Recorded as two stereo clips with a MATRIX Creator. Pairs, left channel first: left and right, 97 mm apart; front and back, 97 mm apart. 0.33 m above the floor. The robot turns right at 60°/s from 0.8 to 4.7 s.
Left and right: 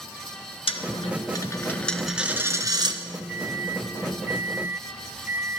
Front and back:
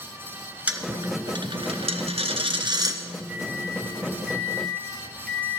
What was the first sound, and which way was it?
A dropped coin, 105° left.